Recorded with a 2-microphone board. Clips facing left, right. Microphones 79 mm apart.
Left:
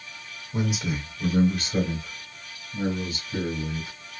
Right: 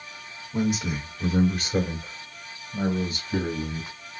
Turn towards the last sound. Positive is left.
turn(degrees=-45)  # may be behind; listen again after turning